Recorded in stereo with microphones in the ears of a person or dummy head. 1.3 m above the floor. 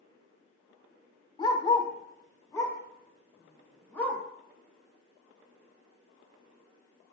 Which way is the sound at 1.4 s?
25° left (ahead or behind).